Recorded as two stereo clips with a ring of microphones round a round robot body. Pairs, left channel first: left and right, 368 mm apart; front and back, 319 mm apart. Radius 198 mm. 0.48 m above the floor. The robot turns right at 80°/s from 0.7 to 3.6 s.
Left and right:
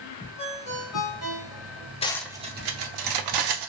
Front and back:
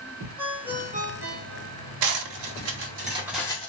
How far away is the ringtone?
About 1.3 m.